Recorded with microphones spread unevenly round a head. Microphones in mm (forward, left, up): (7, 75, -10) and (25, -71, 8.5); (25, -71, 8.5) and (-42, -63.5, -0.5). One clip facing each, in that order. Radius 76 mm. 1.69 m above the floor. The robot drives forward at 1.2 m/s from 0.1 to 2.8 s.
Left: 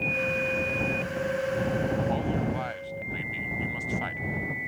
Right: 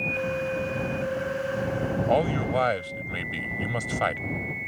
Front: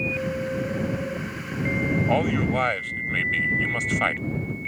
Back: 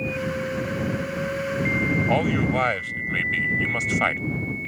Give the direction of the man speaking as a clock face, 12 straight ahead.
3 o'clock.